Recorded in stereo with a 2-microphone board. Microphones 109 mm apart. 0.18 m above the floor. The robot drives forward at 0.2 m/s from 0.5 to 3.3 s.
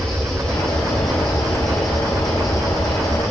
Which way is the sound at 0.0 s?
5° left (ahead or behind).